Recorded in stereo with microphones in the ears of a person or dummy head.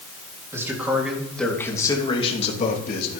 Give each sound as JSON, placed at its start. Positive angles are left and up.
{"t": 0.5, "sound": "a man speaking", "side_deg": -15, "distance_m": 3.0}